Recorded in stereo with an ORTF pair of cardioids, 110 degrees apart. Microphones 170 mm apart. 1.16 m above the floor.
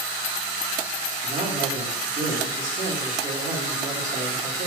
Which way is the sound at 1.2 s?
45° right.